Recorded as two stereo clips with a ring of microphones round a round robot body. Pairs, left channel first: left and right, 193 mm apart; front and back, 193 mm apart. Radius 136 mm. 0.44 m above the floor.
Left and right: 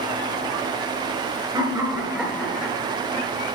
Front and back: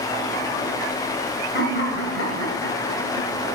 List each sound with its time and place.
1.5 s laughter: 25° right, 2.5 m; by 3.5 s 25° left, 3 m